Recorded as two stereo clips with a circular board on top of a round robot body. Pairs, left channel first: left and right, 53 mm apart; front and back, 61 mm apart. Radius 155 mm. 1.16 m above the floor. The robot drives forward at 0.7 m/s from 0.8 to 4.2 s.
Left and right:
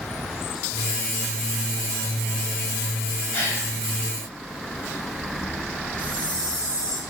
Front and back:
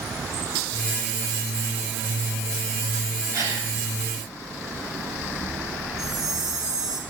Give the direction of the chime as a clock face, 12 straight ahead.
7 o'clock.